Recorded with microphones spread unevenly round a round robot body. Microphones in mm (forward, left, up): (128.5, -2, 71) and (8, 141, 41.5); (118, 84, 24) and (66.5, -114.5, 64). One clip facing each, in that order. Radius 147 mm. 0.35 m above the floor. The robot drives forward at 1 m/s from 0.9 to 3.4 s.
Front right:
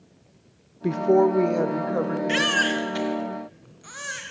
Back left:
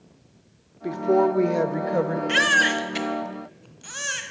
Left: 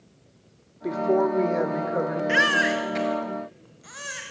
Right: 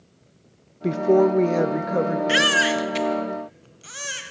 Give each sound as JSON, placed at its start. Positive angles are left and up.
{"t": 0.8, "sound": "a woman speaking", "azimuth_deg": -85, "distance_m": 0.8}
{"t": 2.3, "sound": "a baby crying", "azimuth_deg": -145, "distance_m": 0.8}